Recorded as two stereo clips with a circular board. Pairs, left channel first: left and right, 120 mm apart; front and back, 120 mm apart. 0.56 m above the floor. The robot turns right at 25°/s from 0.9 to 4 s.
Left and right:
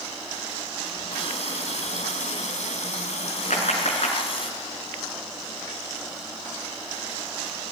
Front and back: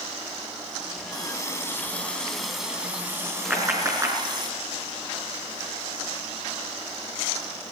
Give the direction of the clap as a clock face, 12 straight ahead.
9 o'clock.